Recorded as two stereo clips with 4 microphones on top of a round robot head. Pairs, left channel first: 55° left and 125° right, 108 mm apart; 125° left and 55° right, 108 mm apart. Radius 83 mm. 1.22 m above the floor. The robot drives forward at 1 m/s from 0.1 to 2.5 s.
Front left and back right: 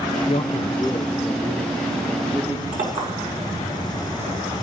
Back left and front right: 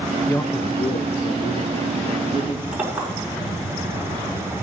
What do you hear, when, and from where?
0.3 s a man speaking: 55° left, 0.8 m; by 2.6 s 165° left, 2.0 m
2.7 s a clink: 130° right, 7 m